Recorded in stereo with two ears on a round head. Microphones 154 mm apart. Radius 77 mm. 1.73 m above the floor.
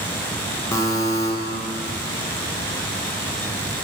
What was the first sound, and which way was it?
A buzzer, 15° left (ahead or behind).